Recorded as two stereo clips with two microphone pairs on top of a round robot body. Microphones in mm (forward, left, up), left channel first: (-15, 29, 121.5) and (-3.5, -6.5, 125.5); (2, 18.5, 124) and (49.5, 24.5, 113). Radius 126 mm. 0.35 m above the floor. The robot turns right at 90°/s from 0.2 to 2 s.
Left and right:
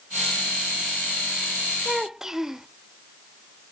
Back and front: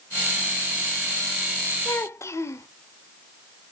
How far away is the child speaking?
About 0.9 m.